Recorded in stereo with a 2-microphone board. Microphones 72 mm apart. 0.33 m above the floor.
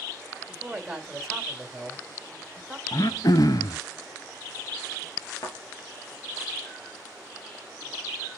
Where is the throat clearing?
60° left (ahead or behind), 0.5 m.